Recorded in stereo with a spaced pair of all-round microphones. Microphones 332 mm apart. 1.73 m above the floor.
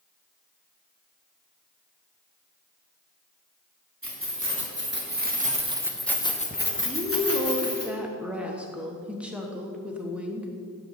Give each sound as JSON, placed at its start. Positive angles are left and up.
{"t": 4.0, "sound": "keys jangling", "side_deg": -40, "distance_m": 2.5}
{"t": 6.8, "sound": "a woman speaking", "side_deg": -5, "distance_m": 1.2}